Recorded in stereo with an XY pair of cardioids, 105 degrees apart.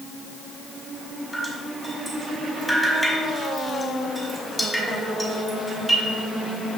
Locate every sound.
1.3 s dripping: straight ahead, 3.5 m